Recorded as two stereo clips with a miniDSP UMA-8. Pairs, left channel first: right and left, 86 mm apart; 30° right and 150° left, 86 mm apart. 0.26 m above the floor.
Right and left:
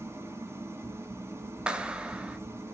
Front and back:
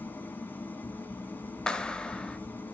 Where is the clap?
35° left, 1.0 m.